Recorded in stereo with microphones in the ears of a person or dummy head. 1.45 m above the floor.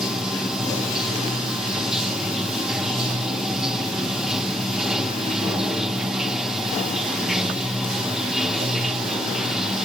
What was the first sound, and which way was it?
Running water, centre (ahead or behind).